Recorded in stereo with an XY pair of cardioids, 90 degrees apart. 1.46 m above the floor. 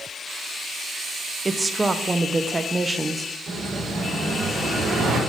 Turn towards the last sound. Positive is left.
turn(degrees=-70)